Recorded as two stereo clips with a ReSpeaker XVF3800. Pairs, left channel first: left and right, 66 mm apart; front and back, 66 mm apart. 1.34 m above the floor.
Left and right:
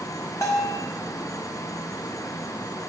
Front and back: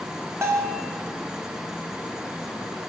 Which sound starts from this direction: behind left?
A bell, at 0.4 s.